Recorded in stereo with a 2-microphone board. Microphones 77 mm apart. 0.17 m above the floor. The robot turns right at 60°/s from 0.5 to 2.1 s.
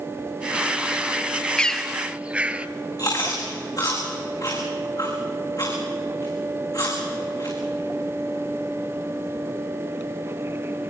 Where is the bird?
15° left (ahead or behind), 0.8 m; by 2.7 s 15° right (ahead or behind), 0.8 m.